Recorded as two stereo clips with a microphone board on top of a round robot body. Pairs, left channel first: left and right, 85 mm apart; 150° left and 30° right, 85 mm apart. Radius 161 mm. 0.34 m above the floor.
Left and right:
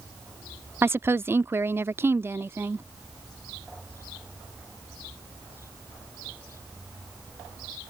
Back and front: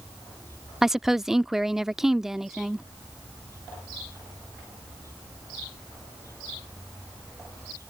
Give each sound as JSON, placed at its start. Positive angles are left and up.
{"t": 0.8, "sound": "a woman speaking", "azimuth_deg": -110}